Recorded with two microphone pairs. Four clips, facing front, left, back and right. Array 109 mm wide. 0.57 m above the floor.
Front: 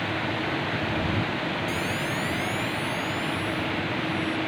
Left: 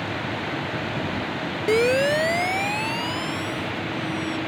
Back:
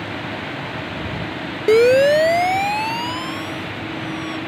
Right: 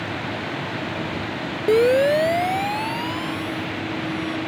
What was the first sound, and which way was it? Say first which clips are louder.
A siren: right 4 dB, back 17 dB; 165° right.